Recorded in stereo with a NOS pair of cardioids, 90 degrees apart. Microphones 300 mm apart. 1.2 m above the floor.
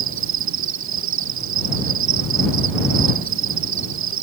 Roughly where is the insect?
Right.